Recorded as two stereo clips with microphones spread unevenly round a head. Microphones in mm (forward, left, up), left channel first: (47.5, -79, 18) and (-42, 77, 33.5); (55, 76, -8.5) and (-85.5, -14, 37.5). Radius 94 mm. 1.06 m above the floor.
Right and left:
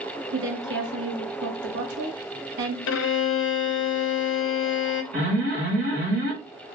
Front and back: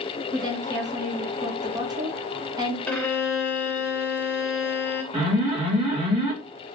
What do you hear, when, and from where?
0.3 s a woman speaking: 140° left, 1.1 m
2.9 s a violin: 45° right, 0.5 m
5.1 s an alarm: 145° left, 2.5 m